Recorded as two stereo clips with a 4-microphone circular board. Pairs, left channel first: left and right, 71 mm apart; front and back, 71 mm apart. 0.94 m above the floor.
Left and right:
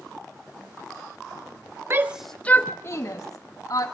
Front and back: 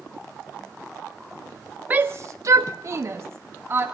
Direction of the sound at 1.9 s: 125° right.